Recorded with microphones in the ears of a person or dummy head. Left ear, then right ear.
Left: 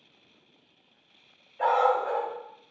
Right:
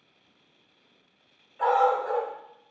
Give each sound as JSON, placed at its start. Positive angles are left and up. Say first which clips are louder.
{"t": 1.6, "sound": "a dog barking", "louder": "right 1 dB", "side_deg": -5, "distance_m": 1.1}